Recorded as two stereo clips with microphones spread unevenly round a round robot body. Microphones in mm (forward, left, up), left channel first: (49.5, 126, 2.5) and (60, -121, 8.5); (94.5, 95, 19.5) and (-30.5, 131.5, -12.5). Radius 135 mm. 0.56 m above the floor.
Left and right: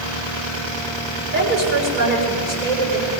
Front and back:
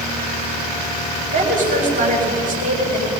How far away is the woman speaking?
About 6.5 m.